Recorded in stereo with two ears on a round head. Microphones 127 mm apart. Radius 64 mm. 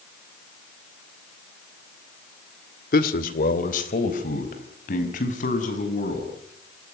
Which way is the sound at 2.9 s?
70° left (ahead or behind).